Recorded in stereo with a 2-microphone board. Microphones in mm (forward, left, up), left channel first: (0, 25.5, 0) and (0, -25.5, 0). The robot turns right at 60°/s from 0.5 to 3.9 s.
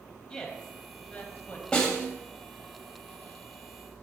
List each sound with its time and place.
0.3 s a woman speaking: 15° left (ahead or behind), 1.1 m; by 1.6 s 30° left (ahead or behind), 1.1 m
1.7 s a snare drum: 15° left (ahead or behind), 1.4 m; by 2.1 s 20° left (ahead or behind), 1.4 m